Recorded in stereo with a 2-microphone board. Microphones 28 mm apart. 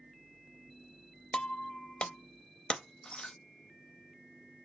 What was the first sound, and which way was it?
Breaking glass, 40° left (ahead or behind).